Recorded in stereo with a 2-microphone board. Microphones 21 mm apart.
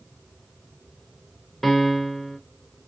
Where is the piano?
Centre (ahead or behind), 0.8 m.